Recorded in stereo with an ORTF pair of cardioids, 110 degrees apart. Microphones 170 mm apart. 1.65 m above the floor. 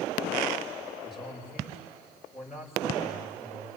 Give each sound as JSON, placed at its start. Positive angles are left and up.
{"t": 1.0, "sound": "a man speaking", "azimuth_deg": -5, "distance_m": 8.5}